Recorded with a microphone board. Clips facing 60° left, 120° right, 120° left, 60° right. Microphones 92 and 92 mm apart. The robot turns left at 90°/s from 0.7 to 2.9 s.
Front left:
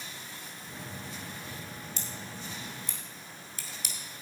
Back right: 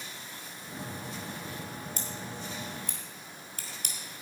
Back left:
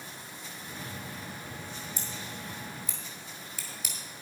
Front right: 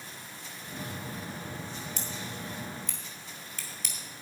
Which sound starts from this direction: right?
Scissors, at 2.0 s.